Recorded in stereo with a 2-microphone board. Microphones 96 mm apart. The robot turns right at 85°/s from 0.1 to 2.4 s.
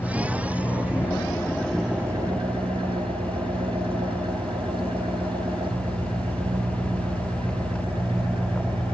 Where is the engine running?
40° left, 3.5 m; by 8.9 s 125° right, 3.5 m.